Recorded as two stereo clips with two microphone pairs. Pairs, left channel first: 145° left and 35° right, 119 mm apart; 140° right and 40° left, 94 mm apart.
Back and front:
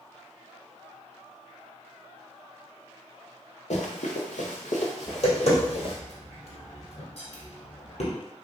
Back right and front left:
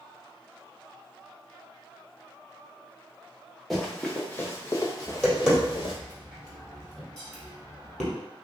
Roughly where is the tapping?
Behind left.